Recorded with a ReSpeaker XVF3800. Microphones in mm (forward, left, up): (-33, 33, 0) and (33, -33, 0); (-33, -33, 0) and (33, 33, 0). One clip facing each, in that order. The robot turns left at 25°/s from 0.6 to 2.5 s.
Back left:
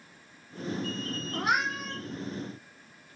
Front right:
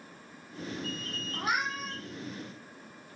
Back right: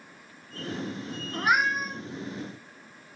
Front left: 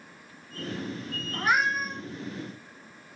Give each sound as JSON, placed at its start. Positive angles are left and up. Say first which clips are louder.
{"t": 1.3, "sound": "a cat meowing", "louder": "back left 3 dB, back right 1 dB", "azimuth_deg": 150, "distance_m": 0.5}